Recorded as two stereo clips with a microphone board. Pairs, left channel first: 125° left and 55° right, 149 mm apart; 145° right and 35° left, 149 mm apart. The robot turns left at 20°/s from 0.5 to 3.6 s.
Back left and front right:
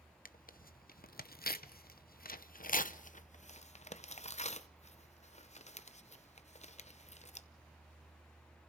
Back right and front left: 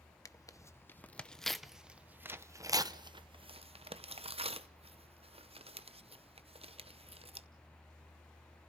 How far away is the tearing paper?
About 0.7 m.